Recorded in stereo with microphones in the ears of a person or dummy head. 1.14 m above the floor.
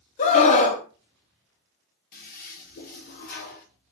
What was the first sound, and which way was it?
A scream, 35° left (ahead or behind).